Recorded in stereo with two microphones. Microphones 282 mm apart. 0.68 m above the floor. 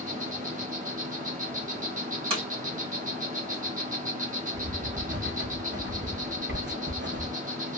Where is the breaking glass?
20° right (ahead or behind), 2 m.